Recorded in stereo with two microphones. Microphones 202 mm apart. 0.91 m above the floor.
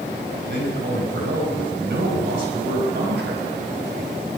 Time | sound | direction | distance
0.3 | a man speaking | 80° right | 4.5 m